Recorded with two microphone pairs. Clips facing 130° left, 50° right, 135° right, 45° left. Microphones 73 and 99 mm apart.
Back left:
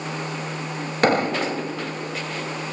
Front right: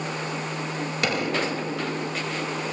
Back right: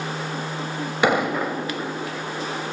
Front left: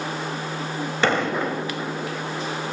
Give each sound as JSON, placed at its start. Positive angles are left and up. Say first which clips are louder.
{"t": 1.0, "sound": "an explosion", "louder": "back left 7 dB, back right 2 dB", "azimuth_deg": 150, "distance_m": 1.5}